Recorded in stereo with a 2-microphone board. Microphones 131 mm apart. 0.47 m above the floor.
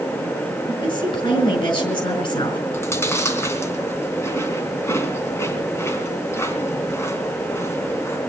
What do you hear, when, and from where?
0.7 s a woman speaking: 45° left (ahead or behind), 5 m
2.7 s chewing: 20° left (ahead or behind), 2 m